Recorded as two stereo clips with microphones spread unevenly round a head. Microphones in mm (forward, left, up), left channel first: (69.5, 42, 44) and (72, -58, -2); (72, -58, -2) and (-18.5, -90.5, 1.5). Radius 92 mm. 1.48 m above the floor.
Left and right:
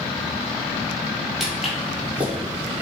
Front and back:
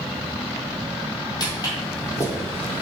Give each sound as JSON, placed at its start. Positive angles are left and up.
{"t": 1.4, "sound": "footsteps", "azimuth_deg": 30, "distance_m": 1.9}